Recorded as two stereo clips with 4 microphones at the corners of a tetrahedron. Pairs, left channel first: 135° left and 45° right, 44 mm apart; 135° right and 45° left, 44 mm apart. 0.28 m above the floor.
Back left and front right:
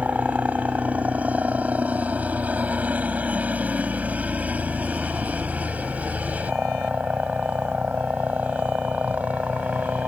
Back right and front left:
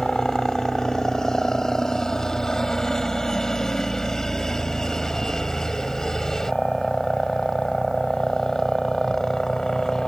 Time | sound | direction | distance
0.0 | a helicopter | 65° right | ?